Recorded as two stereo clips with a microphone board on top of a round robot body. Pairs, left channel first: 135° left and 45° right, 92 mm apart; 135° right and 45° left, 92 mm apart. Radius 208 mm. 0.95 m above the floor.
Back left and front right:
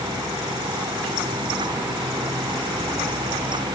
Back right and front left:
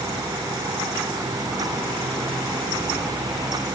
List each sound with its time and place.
Only background noise.